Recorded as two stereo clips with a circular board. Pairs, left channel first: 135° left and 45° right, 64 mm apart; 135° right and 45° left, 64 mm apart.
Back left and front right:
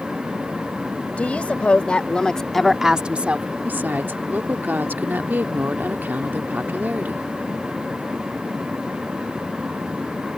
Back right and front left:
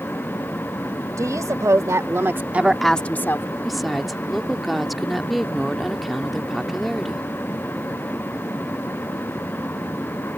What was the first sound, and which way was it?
A woman speaking, 70° left.